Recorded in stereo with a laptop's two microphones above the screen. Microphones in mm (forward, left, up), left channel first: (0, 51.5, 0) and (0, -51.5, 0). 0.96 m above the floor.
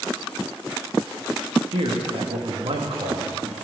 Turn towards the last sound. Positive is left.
turn(degrees=-70)  # may be behind; listen again after turning